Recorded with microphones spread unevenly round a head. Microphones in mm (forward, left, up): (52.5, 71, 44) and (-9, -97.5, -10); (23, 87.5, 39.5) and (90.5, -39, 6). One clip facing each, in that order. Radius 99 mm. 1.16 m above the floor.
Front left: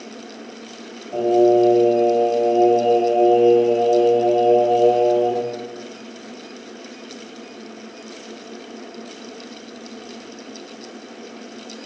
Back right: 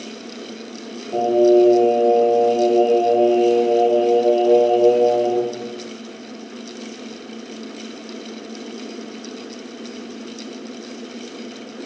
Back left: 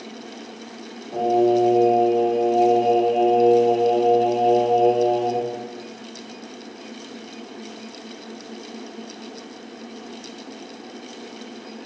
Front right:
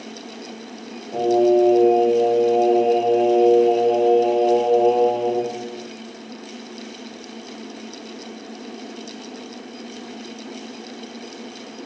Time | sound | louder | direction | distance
1.1 | singing | back right 1 dB, front right 2 dB | 135° right | 1.3 m